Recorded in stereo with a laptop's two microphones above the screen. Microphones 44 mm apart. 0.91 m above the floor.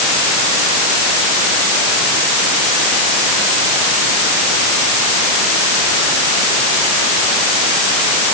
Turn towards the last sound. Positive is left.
No sound to turn to.